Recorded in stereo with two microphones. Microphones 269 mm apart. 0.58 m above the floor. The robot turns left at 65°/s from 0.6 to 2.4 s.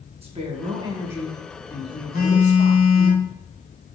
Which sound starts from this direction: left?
A phone buzzing, at 2.1 s.